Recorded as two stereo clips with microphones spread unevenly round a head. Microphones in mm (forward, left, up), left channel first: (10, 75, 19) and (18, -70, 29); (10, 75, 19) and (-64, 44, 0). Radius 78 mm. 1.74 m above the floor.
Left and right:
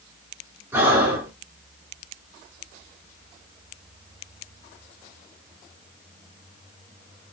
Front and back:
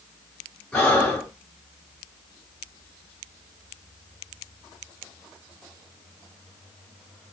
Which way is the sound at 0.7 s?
30° right.